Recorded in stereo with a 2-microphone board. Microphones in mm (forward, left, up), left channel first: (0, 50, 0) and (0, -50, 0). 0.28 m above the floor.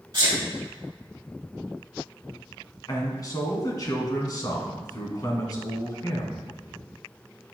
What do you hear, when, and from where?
0.1 s a sneeze: 35° right (ahead or behind), 1.8 m
2.9 s a man speaking: 40° left (ahead or behind), 2 m